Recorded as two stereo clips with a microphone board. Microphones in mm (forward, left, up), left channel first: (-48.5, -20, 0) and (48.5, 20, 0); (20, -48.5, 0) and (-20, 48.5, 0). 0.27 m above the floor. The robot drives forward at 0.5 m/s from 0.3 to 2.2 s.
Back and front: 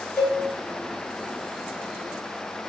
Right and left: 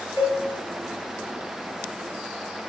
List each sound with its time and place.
0.2 s a cowbell: 115° left, 1.4 m